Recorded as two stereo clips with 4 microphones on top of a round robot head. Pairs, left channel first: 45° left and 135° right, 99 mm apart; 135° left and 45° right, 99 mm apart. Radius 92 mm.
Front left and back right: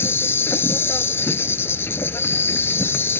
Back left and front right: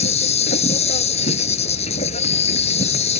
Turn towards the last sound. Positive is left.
turn(degrees=115)